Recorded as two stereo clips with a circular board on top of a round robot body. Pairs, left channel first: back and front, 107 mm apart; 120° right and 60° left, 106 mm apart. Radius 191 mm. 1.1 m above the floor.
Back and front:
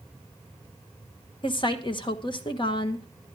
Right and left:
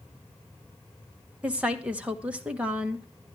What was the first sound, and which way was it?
A woman speaking, 140° left.